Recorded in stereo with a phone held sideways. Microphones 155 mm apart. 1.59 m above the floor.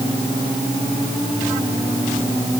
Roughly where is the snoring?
I don't hear snoring.